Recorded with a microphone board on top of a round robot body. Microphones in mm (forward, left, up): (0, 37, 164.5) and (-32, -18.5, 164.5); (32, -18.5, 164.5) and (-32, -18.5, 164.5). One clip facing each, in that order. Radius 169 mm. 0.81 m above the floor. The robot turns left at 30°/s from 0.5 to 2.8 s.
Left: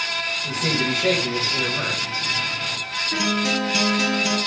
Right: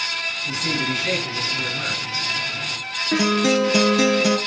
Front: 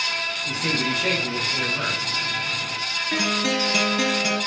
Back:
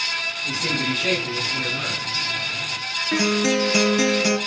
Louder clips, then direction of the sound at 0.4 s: Left 1 dB, even; 95° left.